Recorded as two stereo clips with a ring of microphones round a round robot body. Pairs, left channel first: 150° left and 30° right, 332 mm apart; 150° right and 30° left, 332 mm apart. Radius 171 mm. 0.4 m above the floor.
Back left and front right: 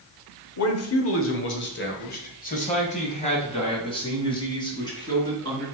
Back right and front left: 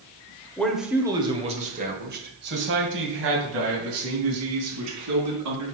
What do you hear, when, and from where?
0.6 s a man speaking: 125° left, 1.2 m; by 5.7 s 70° left, 4 m